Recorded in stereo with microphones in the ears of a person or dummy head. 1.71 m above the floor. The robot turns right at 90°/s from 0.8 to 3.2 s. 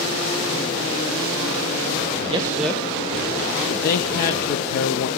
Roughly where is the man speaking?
Right.